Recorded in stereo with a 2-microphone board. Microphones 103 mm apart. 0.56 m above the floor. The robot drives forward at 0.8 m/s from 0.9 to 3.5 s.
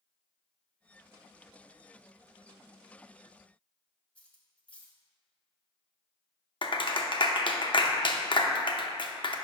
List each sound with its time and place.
4.2 s cutlery clinking: 15° left (ahead or behind), 0.9 m
6.6 s a clap: 50° left (ahead or behind), 0.6 m